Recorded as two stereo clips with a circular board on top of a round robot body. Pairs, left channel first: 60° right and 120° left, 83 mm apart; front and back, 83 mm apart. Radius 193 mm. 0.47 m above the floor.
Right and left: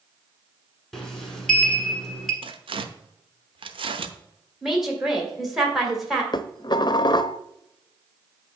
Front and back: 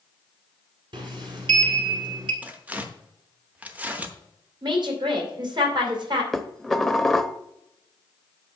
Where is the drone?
I don't hear a drone.